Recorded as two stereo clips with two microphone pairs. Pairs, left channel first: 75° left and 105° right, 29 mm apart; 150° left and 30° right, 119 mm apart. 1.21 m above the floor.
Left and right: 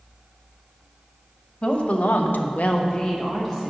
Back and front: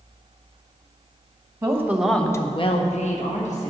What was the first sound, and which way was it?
A woman speaking, 35° left.